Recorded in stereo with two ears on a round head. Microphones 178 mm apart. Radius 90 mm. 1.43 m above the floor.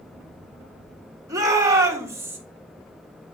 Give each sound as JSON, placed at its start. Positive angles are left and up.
{"t": 1.3, "sound": "a shout", "side_deg": -20, "distance_m": 2.5}